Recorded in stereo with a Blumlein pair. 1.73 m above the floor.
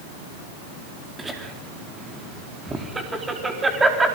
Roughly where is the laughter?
Ahead.